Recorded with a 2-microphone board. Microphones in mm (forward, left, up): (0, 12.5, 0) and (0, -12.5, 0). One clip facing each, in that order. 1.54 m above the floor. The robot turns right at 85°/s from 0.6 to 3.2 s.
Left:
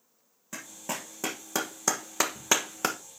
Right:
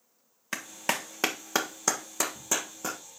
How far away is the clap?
About 1.3 m.